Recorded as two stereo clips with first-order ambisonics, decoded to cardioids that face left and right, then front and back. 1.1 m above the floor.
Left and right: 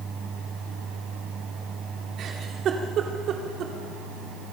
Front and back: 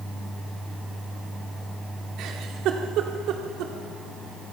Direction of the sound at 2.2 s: 140° right.